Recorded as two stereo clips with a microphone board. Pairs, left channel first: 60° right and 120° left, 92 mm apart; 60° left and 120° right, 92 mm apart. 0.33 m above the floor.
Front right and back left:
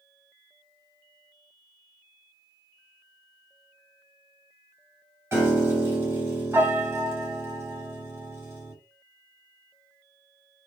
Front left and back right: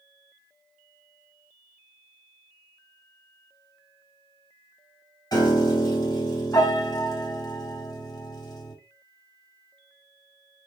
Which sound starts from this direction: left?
A piano, at 5.3 s.